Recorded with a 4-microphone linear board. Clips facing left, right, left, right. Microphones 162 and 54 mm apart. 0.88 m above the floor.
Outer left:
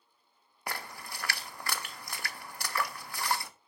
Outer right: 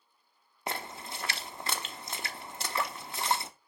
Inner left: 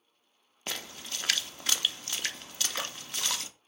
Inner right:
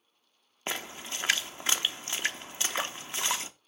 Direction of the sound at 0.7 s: 25° right (ahead or behind).